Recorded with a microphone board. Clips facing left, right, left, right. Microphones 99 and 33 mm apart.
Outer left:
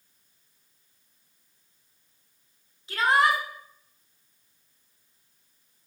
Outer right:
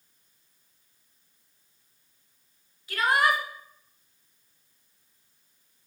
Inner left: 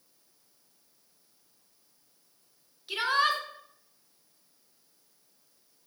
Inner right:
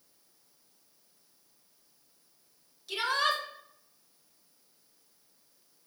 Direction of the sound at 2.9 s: 30° left (ahead or behind).